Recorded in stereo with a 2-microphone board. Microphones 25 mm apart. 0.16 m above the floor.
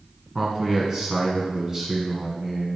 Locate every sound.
0.3 s a man speaking: 20° right (ahead or behind), 1.4 m